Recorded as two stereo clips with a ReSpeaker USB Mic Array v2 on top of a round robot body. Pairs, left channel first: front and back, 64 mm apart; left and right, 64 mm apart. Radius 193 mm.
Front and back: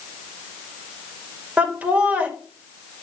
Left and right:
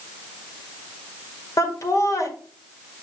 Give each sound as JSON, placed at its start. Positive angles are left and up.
{"t": 1.6, "sound": "laughter", "azimuth_deg": 110, "distance_m": 2.0}